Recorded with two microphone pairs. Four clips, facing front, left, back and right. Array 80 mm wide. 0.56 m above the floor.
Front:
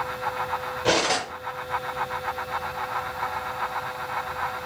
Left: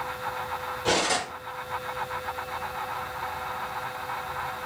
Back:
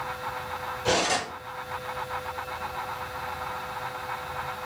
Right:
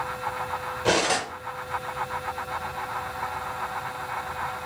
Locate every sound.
0.8 s cutlery clinking: 35° right, 1.0 m